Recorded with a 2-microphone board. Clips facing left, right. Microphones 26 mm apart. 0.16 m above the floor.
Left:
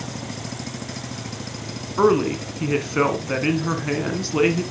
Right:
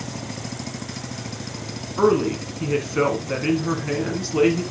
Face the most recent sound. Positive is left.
turn(degrees=15)  # may be behind; listen again after turning